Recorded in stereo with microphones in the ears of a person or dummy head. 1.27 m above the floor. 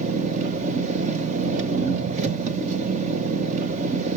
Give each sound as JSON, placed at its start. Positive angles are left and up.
{"t": 0.0, "sound": "an engine running", "side_deg": -45, "distance_m": 1.0}